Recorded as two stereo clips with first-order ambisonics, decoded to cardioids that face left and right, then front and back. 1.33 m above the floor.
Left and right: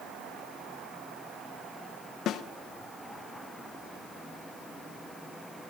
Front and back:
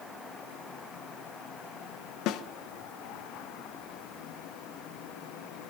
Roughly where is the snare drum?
Ahead left.